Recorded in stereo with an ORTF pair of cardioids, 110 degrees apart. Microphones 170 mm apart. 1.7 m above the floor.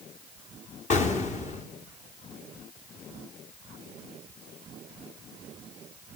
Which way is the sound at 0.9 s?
45° left.